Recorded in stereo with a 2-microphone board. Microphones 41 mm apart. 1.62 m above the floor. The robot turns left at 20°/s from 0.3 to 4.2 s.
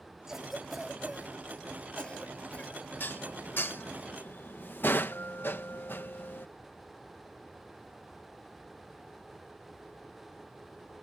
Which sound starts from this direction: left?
Dishes clattering, at 3.0 s.